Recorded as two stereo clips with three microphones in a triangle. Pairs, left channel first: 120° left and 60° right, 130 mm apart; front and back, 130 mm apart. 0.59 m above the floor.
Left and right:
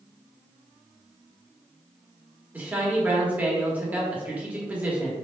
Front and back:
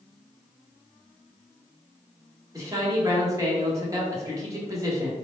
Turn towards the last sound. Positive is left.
turn(degrees=-130)